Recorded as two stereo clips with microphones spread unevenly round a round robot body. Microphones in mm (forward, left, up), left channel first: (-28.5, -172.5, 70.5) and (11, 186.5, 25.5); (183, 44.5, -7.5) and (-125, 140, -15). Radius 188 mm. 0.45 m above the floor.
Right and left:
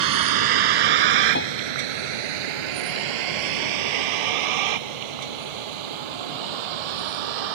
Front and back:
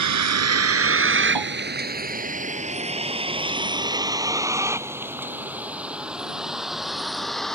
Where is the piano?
160° right.